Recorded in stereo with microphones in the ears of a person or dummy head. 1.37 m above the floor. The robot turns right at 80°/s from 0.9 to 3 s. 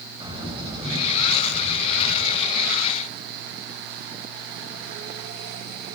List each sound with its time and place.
0.2 s a bird: 160° right, 5 m; by 2.7 s 15° right, 5 m